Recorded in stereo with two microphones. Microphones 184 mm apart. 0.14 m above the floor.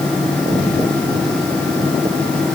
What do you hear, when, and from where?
Only background noise.